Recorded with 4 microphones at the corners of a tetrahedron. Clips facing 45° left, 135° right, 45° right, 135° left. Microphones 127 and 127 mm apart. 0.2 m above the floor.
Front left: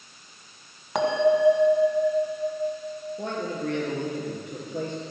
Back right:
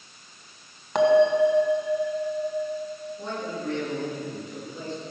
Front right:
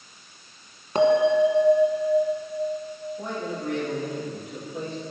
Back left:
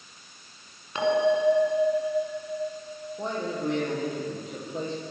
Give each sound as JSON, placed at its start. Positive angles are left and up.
{"t": 0.9, "sound": "a bell", "azimuth_deg": -40, "distance_m": 1.7}
{"t": 3.2, "sound": "a man speaking", "azimuth_deg": 70, "distance_m": 4.5}